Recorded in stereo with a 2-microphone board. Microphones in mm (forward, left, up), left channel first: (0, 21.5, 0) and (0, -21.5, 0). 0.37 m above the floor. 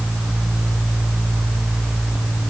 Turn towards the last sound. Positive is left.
No sound to turn to.